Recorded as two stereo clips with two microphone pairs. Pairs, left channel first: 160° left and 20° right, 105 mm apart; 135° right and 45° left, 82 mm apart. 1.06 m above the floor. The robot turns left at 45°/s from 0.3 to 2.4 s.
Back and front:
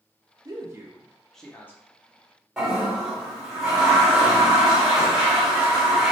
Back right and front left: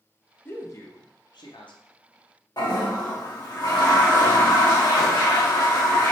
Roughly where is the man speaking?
Right.